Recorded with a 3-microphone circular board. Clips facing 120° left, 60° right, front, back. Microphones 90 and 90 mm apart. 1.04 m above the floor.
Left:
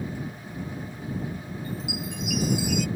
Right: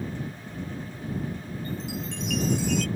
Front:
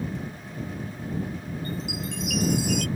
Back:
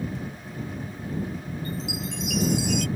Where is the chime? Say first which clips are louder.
Even, even; 40° left.